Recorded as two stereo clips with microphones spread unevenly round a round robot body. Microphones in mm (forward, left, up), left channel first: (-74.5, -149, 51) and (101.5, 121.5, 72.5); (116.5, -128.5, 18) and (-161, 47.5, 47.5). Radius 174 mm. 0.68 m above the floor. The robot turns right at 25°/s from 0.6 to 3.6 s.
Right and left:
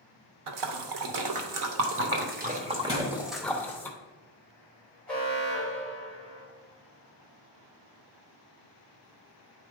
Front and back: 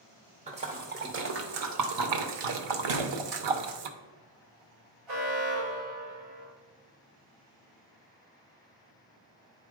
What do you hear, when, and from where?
0.5 s a splash: 75° left, 0.8 m; by 3.9 s 150° left, 0.8 m
2.9 s a thud: 120° left, 1.8 m; by 3.1 s 125° left, 1.8 m
5.1 s an alarm: 150° left, 3.5 m